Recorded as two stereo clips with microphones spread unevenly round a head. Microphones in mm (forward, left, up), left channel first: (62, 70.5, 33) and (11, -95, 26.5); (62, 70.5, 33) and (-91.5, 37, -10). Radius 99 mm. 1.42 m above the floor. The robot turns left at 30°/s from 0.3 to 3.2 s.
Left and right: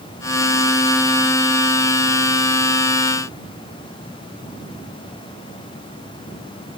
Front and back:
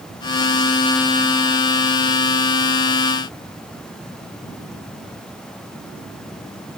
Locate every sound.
Only background noise.